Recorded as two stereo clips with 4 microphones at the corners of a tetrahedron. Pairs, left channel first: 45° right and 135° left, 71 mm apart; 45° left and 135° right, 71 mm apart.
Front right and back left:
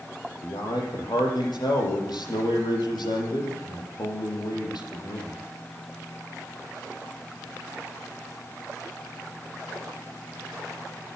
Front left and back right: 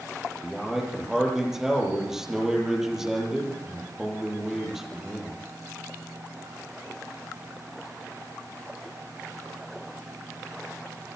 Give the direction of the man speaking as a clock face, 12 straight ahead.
2 o'clock.